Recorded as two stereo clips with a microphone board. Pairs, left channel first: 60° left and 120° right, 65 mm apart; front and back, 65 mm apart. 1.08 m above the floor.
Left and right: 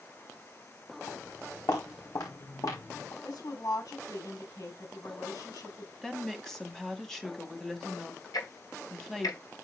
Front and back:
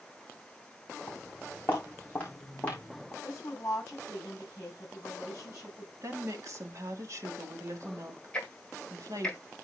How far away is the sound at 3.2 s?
About 8 m.